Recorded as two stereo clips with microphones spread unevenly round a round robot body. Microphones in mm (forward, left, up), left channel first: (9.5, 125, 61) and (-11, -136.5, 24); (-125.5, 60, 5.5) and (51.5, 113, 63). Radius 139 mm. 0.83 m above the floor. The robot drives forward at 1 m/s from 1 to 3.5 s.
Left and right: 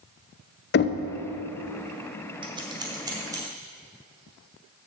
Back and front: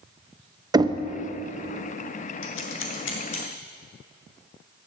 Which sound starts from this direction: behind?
Scissors, at 2.4 s.